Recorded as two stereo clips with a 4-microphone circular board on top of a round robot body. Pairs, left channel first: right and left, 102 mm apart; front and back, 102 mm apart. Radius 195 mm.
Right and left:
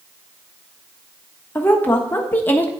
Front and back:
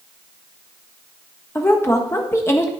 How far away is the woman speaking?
About 1.4 m.